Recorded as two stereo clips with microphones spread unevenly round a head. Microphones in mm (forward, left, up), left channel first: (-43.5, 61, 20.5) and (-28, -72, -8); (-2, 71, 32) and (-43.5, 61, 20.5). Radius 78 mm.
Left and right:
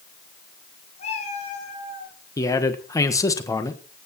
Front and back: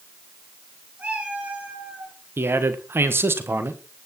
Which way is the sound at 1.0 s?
130° left.